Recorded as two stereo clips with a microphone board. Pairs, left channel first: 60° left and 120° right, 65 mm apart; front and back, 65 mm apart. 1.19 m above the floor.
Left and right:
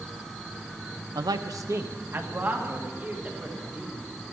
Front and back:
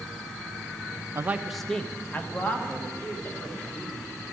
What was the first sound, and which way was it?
A man speaking, 130° right.